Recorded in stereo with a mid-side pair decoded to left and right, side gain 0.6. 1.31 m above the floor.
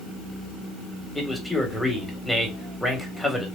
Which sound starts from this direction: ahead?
A man speaking, at 1.1 s.